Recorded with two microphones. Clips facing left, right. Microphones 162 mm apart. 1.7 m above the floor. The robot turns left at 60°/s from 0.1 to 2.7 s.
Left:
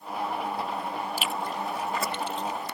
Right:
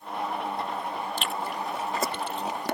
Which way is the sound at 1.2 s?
10° left (ahead or behind).